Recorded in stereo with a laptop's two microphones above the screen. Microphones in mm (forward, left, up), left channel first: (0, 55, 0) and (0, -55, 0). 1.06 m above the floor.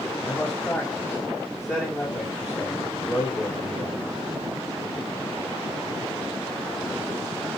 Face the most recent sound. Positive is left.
turn(degrees=25)  # may be behind; listen again after turning